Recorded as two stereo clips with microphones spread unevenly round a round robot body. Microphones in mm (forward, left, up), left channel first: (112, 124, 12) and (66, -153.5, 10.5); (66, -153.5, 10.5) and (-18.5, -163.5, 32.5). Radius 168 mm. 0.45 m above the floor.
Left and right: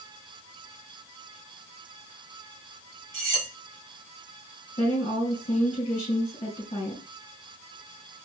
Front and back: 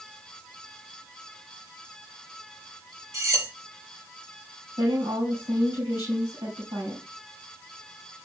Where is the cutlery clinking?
120° right, 5 m.